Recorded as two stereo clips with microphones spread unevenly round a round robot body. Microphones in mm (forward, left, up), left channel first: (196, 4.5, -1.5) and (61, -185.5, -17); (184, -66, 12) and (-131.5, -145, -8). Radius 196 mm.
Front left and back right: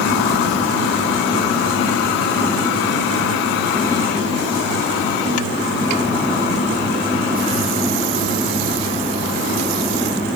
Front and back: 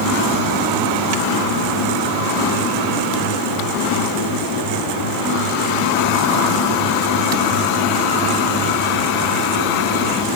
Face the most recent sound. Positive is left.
No sound to turn to.